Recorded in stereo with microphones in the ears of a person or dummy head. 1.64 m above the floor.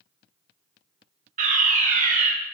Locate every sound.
1.4 s a fire alarm: 45° right (ahead or behind), 2.5 m